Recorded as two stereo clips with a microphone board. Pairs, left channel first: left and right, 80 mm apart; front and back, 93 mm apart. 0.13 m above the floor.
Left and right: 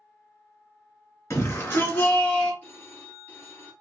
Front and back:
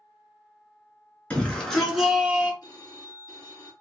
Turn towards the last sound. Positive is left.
turn(degrees=25)